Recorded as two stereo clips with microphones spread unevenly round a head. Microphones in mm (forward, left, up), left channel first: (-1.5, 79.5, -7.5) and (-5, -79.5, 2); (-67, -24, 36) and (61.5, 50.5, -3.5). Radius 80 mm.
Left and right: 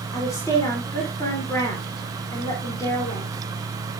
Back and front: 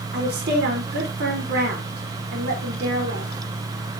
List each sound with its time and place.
0.1 s a woman speaking: 15° left, 3.5 m